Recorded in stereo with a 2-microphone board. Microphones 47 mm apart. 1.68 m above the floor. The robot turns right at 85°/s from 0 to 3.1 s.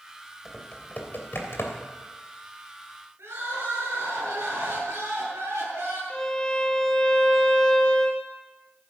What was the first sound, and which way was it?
Typing on a keyboard, 5° right (ahead or behind).